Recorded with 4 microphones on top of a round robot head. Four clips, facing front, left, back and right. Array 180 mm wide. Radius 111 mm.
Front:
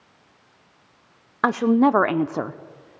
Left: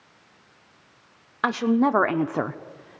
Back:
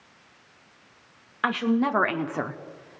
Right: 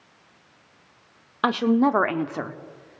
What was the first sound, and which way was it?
A woman speaking, 25° right.